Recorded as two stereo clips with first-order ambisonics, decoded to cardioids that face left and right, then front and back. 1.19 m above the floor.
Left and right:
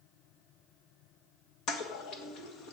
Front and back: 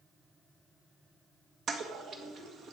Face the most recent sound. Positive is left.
turn(degrees=130)